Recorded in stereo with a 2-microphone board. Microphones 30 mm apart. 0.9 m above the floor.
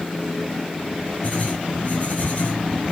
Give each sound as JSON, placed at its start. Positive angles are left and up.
{"t": 1.2, "sound": "writing", "side_deg": 50, "distance_m": 6.0}